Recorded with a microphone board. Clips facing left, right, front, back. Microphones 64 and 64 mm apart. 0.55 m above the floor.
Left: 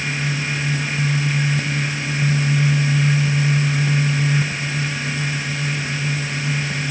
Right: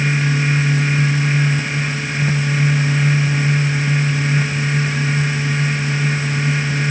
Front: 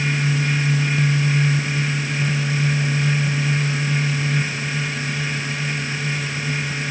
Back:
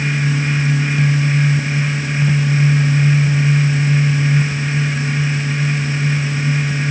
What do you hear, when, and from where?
Only background noise.